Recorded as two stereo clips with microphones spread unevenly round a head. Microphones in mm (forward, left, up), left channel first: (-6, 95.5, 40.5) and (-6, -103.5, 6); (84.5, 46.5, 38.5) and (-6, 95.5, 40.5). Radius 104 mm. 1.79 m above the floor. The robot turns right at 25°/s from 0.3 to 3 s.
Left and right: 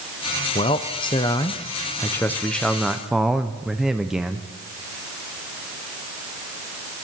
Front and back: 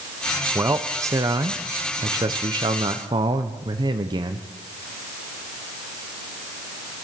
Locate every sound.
0.6 s a man speaking: 110° left, 0.6 m; by 4.5 s 170° left, 0.6 m